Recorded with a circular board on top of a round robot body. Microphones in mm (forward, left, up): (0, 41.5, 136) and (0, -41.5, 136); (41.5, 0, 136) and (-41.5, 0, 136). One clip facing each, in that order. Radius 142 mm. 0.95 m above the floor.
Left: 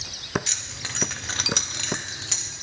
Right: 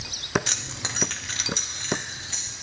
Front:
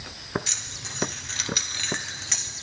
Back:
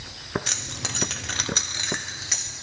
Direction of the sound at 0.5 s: 135° right.